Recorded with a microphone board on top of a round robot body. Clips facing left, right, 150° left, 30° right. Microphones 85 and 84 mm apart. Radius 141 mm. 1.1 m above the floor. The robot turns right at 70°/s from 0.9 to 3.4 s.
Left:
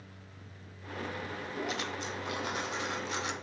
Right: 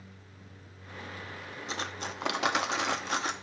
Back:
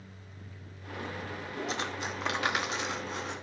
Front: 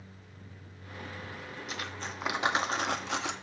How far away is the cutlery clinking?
About 1.0 m.